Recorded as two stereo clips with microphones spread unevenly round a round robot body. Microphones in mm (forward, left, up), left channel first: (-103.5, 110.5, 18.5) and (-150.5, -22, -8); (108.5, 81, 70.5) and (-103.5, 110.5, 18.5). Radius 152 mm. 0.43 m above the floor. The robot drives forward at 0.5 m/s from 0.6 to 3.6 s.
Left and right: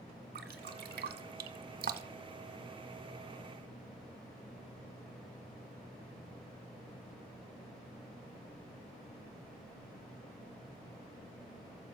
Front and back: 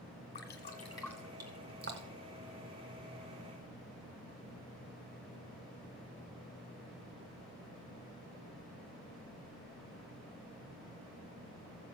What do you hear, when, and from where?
0.3 s dripping: 60° right, 0.6 m; by 2.3 s 140° right, 0.8 m